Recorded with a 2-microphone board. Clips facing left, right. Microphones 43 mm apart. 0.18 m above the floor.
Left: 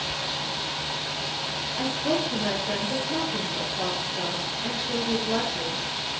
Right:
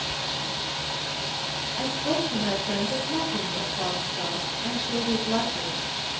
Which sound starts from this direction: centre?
A woman speaking, at 1.8 s.